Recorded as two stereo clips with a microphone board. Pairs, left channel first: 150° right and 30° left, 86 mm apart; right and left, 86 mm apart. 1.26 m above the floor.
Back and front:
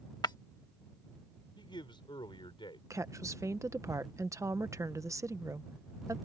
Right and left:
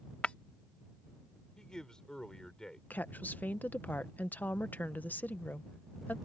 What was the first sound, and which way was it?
Breaking glass, 160° right.